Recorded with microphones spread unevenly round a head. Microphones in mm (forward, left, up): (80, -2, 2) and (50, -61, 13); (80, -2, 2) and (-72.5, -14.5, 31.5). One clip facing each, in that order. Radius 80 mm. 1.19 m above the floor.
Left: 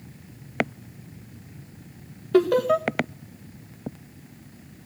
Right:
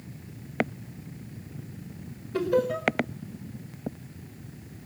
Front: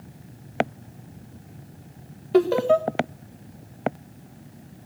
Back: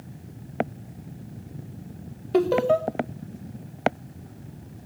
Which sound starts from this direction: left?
Laughter, at 2.3 s.